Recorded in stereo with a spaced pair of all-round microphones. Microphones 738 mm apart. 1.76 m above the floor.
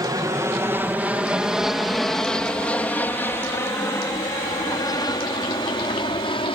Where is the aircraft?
5° right (ahead or behind); by 6.6 s 5° left (ahead or behind).